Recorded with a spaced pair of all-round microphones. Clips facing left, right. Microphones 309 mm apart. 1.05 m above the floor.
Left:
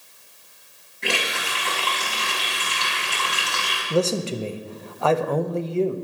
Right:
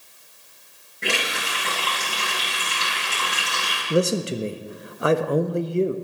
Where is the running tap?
85° right, 4 m.